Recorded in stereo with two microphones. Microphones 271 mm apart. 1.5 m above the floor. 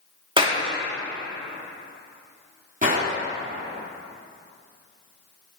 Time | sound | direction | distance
0.4 | a clap | 20° right (ahead or behind) | 2 m
2.8 | a gunshot | 30° right (ahead or behind) | 3.5 m